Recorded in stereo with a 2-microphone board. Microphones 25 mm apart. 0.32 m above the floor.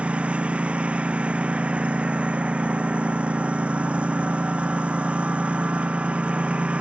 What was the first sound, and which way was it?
A lawn mower, 60° right (ahead or behind).